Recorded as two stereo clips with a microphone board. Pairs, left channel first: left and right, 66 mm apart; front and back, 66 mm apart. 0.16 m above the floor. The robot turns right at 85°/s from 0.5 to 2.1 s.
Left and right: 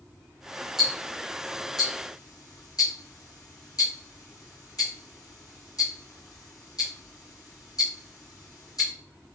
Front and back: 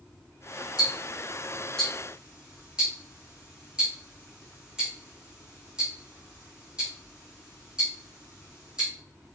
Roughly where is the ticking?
Ahead.